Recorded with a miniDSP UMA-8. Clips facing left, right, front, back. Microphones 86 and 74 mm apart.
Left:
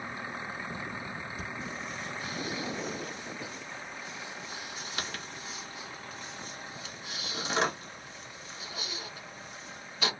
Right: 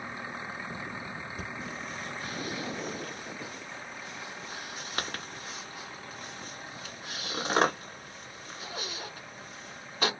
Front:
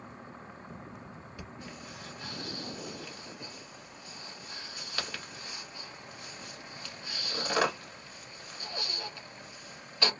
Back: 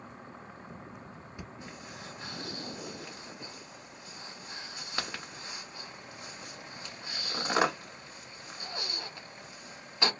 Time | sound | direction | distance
1.4 | breathing | 115° right | 1.3 m